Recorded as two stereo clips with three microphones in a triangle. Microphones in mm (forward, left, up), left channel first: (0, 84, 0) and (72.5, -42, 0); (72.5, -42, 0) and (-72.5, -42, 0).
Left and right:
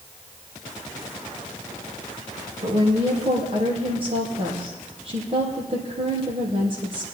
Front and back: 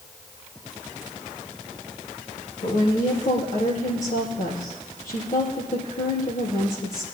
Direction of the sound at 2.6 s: 15° right.